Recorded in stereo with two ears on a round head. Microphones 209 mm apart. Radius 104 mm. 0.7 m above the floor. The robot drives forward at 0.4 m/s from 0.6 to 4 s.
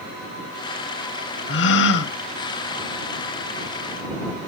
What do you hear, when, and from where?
1.5 s a gasp: 50° left (ahead or behind), 0.7 m